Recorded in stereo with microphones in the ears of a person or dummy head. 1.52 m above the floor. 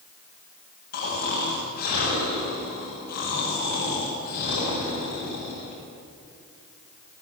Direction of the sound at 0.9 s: 45° left (ahead or behind).